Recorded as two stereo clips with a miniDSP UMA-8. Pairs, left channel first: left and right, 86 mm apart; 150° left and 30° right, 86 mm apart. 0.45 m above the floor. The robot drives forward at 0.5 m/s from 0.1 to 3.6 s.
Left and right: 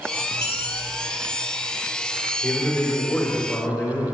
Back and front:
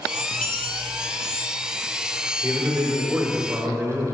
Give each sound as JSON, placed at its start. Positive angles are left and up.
{"t": 0.3, "sound": "a dropped coin", "azimuth_deg": -130, "distance_m": 2.5}
{"t": 2.4, "sound": "a man speaking", "azimuth_deg": 20, "distance_m": 1.8}